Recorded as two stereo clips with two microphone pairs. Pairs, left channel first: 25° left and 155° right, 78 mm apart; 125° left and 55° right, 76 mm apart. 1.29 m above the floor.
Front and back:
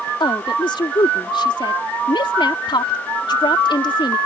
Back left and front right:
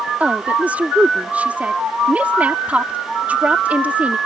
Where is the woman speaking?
20° left.